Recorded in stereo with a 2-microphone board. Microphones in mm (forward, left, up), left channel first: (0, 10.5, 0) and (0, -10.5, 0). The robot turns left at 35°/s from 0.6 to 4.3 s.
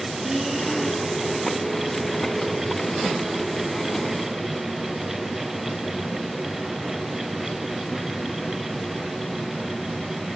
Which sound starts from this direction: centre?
Breathing, at 0.2 s.